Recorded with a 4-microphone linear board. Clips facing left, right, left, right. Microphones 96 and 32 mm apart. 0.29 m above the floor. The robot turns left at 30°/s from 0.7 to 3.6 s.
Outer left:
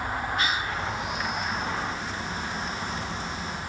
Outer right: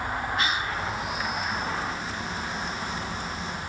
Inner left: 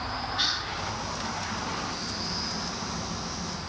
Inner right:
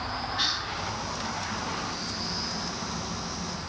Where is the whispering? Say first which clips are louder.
Even, even; centre (ahead or behind), 2 m.